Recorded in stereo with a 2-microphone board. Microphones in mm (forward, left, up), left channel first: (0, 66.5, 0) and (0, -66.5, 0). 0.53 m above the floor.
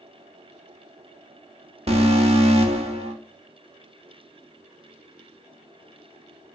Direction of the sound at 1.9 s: 50° right (ahead or behind).